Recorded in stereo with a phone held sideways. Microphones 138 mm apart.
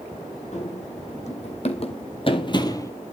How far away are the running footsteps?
About 3 m.